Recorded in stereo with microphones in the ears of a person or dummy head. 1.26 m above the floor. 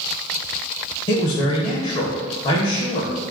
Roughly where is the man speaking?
Left.